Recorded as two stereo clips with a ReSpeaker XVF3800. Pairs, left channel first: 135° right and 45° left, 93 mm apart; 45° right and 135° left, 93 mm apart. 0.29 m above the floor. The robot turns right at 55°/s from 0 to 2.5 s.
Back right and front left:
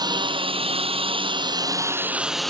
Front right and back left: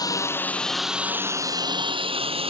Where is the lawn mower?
Straight ahead; by 2.5 s 140° left.